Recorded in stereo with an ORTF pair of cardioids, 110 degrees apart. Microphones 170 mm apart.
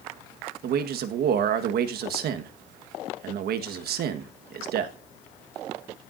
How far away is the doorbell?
I don't hear a doorbell.